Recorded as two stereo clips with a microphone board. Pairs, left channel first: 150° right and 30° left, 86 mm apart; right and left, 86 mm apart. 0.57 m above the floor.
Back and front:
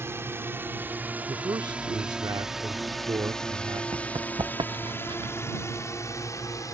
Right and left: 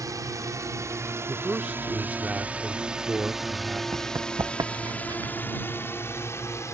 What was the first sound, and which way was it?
A drone, 75° left.